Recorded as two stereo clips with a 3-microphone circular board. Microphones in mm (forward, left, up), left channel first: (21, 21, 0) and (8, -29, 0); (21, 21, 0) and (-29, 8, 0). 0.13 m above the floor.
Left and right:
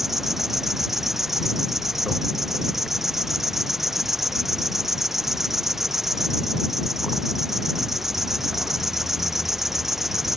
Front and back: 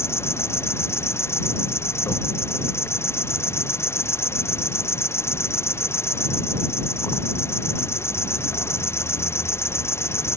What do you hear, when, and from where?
0.0 s an insect: 20° right